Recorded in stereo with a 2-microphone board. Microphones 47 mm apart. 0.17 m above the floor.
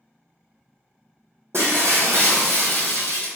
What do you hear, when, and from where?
1.5 s breaking glass: 65° right (ahead or behind), 1.5 m